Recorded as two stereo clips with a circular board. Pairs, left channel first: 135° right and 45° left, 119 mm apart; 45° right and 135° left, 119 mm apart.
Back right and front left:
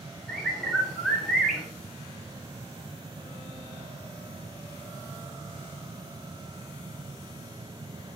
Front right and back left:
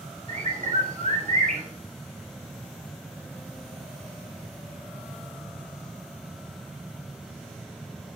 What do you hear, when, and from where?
0.3 s a bird: 135° left, 3.5 m